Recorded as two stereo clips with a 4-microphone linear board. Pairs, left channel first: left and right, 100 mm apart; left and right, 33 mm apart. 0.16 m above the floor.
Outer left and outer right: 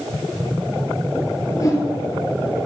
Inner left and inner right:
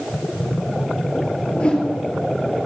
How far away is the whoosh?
About 3 m.